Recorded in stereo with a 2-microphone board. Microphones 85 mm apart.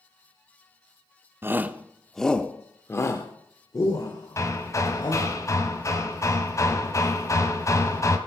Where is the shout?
30° right (ahead or behind), 0.8 m; by 5.3 s 55° left (ahead or behind), 2 m.